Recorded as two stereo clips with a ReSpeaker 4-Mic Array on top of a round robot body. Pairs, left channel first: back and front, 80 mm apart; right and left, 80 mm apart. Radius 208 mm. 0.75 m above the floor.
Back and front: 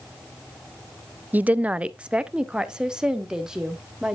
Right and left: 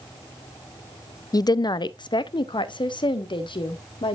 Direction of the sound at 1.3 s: 65° right.